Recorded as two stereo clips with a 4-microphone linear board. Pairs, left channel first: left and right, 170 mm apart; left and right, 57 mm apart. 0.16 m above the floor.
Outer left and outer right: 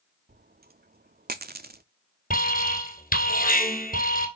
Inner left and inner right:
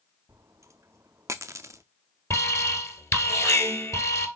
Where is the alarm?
55° left (ahead or behind), 1.9 m.